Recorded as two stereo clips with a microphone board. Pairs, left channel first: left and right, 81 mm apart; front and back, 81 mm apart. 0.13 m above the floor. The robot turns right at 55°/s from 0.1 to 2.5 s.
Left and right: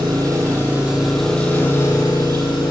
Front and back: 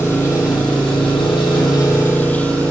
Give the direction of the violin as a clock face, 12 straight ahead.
No violin in this recording.